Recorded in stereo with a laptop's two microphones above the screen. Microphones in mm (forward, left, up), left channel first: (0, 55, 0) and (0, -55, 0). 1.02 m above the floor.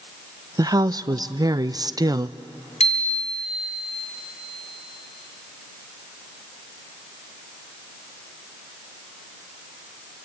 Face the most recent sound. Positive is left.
turn(degrees=90)